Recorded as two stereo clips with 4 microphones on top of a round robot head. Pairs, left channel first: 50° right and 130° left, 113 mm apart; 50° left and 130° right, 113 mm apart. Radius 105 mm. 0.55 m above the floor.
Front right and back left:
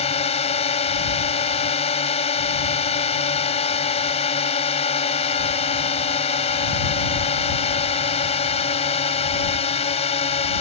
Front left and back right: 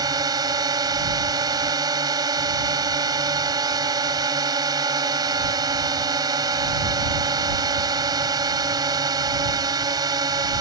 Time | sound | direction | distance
0.0 | a drone | 75° right | ?